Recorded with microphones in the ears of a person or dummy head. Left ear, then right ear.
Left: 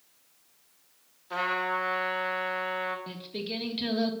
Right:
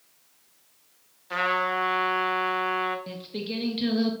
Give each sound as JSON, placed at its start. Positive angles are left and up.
{"t": 1.3, "sound": "a trumpet", "side_deg": -20, "distance_m": 1.2}
{"t": 3.1, "sound": "singing", "side_deg": 0, "distance_m": 1.0}